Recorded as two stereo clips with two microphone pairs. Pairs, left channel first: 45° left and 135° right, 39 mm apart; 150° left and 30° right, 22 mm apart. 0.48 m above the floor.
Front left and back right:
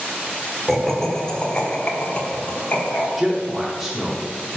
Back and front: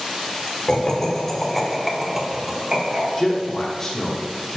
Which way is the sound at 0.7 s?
125° left.